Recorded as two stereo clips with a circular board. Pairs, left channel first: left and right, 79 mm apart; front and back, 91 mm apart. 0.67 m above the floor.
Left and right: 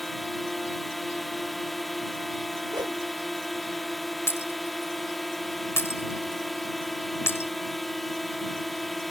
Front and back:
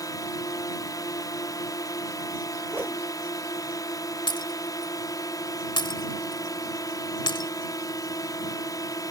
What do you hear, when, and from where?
0.0 s a drone: straight ahead
2.7 s a whoosh: 110° right
4.3 s breaking glass: 35° left